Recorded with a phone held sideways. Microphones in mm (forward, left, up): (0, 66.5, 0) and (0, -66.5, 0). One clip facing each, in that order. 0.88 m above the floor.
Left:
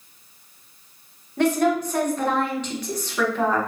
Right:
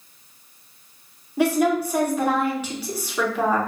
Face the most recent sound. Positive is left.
turn(degrees=-10)  # may be behind; listen again after turning